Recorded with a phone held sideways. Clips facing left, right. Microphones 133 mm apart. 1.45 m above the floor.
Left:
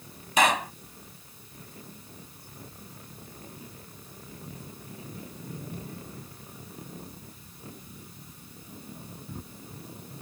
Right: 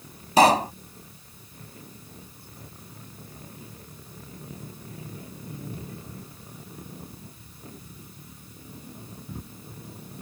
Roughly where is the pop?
Right.